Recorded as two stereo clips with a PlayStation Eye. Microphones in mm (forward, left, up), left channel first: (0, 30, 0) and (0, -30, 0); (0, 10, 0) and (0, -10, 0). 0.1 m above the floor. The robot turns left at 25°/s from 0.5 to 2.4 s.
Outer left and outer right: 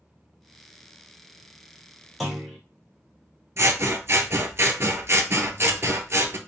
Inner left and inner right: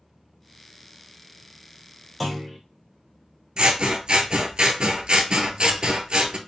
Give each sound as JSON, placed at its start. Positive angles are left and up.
{"t": 2.2, "sound": "a clunk", "side_deg": 0, "distance_m": 1.3}
{"t": 3.6, "sound": "scissors", "side_deg": -45, "distance_m": 0.5}